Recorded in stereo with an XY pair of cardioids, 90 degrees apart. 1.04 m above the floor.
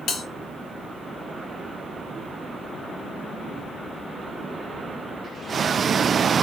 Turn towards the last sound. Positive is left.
turn(degrees=70)